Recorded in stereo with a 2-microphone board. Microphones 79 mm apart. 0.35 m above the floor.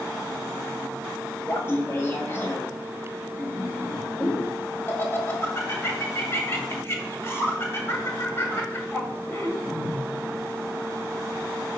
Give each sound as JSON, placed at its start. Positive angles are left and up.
{"t": 1.4, "sound": "laughter", "side_deg": 35, "distance_m": 1.8}